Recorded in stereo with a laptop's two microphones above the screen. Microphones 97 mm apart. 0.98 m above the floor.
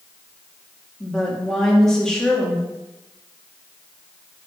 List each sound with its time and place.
1.0 s a woman speaking: 5° left (ahead or behind), 2 m